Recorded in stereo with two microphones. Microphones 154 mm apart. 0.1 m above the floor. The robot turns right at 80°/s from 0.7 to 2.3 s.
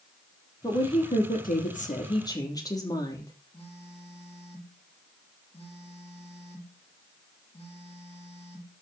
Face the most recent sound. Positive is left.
turn(degrees=40)  # may be behind; listen again after turning